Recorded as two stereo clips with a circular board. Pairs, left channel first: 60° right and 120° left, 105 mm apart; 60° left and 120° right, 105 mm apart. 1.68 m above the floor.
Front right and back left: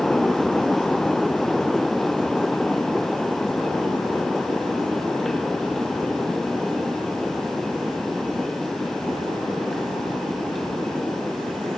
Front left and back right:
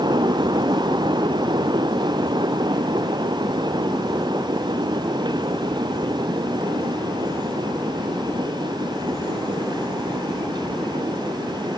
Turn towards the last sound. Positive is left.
No sound to turn to.